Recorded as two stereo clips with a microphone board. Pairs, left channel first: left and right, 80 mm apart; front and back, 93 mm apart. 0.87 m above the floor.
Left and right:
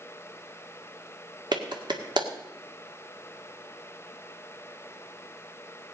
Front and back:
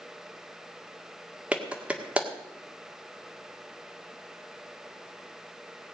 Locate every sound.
1.5 s a clap: 105° right, 1.8 m